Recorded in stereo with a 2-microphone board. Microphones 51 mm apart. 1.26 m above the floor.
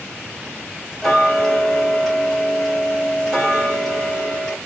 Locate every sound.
1.0 s ticking: 10° left (ahead or behind), 1.5 m